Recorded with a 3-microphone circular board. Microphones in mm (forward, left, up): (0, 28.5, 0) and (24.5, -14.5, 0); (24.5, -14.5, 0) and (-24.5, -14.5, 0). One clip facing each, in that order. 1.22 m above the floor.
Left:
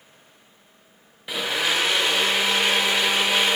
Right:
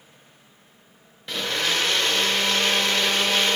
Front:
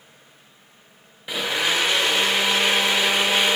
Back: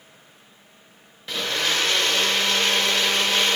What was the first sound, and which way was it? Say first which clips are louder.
A blender: left 1 dB, front 2 dB; 55° left.